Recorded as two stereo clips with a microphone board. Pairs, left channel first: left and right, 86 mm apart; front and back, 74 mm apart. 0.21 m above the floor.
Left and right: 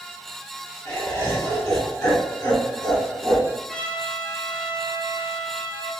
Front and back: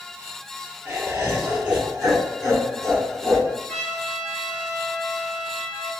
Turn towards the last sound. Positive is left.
turn(degrees=50)